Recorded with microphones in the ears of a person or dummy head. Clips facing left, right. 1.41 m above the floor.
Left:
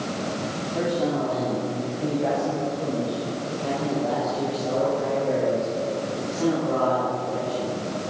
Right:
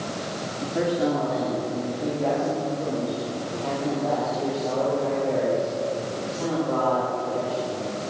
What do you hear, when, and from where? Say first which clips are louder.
0.6 s a man speaking: right 2 dB; 25° right (ahead or behind), 3 m; by 7.7 s 30° left (ahead or behind), 10 m